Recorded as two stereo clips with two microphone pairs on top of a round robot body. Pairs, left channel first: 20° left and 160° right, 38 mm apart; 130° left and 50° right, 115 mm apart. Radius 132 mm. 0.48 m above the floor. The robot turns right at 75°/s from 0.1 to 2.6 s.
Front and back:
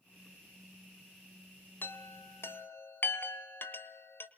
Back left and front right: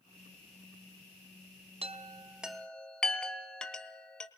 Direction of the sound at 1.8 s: 15° right.